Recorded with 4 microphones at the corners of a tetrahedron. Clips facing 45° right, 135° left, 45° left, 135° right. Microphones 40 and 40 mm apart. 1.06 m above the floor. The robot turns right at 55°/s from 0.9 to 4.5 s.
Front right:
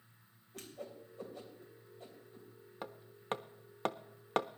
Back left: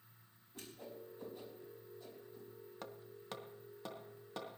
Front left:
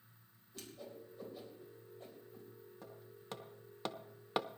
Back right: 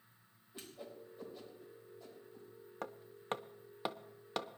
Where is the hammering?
115° right, 0.5 m; by 4.6 s 25° right, 0.5 m.